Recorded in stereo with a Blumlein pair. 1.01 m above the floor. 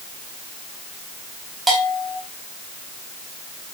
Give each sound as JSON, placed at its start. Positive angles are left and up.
{"t": 1.7, "sound": "a bell", "azimuth_deg": -10, "distance_m": 3.5}